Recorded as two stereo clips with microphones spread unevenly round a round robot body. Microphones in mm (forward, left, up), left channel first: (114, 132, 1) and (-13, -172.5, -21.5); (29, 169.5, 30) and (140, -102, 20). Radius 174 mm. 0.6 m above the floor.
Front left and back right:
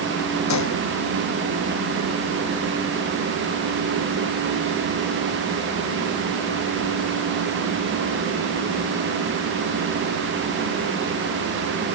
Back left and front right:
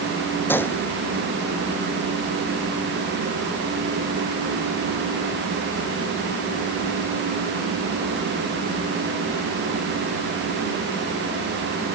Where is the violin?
I don't hear a violin.